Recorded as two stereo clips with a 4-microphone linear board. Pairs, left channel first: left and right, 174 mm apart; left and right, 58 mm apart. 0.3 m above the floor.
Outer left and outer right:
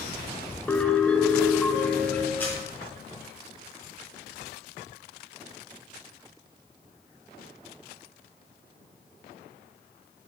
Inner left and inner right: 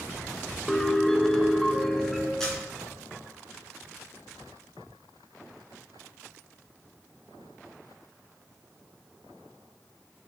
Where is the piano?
10° left (ahead or behind), 0.8 m.